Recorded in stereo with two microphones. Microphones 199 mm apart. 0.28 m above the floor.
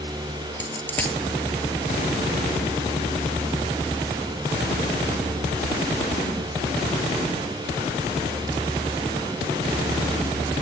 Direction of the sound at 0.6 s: 10° left (ahead or behind).